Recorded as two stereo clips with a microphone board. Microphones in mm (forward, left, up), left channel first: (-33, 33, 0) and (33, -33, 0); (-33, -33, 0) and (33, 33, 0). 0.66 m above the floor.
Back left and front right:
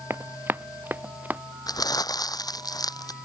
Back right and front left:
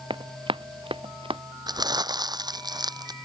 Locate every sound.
0.1 s running footsteps: 20° left; by 1.4 s 30° left
1.7 s crumpling: 90° left